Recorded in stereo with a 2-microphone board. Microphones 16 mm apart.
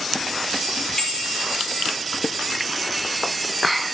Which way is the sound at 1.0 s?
40° left (ahead or behind).